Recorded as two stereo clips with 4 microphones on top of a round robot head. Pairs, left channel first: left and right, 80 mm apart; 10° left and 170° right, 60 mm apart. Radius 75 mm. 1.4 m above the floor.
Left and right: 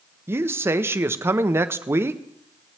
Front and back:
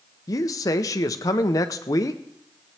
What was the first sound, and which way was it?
A man speaking, 25° right.